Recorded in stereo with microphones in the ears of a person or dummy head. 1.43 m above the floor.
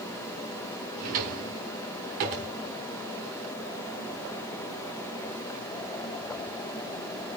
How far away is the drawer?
About 1.4 m.